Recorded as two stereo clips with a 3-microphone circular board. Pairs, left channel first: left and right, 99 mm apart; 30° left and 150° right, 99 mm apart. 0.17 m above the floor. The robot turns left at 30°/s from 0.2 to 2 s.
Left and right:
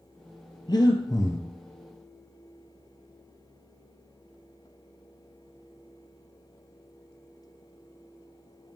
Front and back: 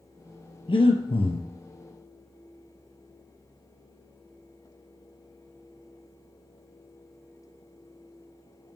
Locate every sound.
0.7 s breathing: 55° left, 1.0 m; by 1.5 s 30° left, 1.0 m